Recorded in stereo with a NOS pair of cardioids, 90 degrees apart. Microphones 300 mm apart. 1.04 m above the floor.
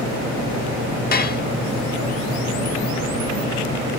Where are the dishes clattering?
30° left, 1.0 m.